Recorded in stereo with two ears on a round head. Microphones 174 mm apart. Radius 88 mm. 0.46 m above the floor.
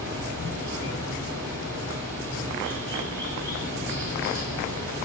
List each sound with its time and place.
0.0 s running water: 65° right (ahead or behind), 7 m